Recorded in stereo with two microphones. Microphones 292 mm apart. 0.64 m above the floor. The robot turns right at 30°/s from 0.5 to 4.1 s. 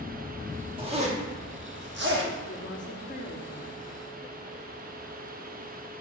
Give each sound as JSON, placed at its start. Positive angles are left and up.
{"t": 0.8, "sound": "a zipper", "side_deg": -15, "distance_m": 1.2}
{"t": 2.5, "sound": "a woman speaking", "azimuth_deg": 105, "distance_m": 0.7}